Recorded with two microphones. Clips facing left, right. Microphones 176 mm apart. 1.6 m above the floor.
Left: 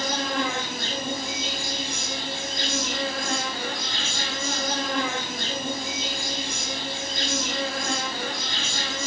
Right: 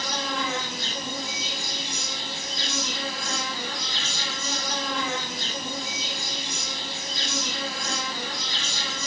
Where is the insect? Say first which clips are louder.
Left 4 dB; 60° left (ahead or behind), 4.5 m.